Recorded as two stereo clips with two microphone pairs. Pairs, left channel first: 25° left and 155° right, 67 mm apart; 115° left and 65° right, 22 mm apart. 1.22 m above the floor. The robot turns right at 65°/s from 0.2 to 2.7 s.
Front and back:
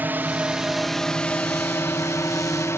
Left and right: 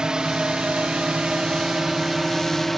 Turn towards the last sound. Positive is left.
turn(degrees=35)